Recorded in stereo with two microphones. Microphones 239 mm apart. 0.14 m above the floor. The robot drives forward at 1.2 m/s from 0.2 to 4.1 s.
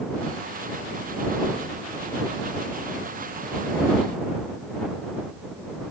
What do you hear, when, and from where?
Only background noise.